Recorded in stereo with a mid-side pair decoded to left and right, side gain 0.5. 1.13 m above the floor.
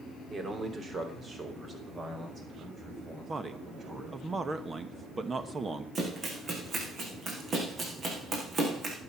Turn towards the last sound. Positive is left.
turn(degrees=-45)